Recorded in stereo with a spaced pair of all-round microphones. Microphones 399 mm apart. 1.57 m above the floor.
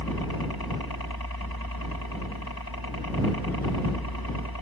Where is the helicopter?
65° left (ahead or behind).